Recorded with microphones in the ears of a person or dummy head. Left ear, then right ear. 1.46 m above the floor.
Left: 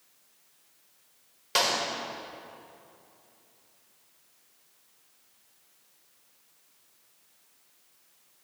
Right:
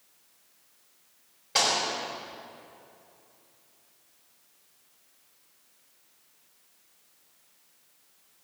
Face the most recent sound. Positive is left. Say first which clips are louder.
# right 1 dB
turn(degrees=50)  # may be behind; listen again after turning